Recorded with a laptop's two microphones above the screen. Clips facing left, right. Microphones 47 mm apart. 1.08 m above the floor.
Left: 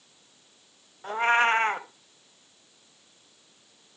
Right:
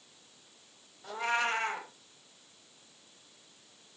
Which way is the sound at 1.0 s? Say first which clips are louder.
Left 9 dB; 45° left (ahead or behind).